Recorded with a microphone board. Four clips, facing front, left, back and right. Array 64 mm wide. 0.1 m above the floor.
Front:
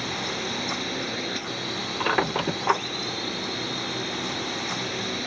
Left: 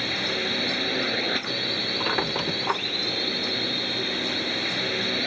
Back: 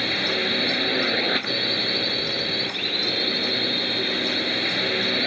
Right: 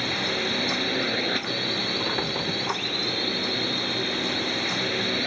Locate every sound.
0.0 s a drone: straight behind
2.0 s a squeak: 20° left